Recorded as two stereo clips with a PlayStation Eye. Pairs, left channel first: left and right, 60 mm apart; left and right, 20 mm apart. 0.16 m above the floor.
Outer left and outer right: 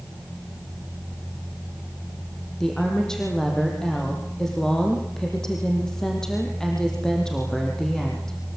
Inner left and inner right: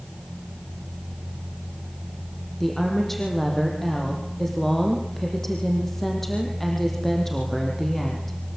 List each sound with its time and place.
2.6 s a woman speaking: 10° left (ahead or behind), 6 m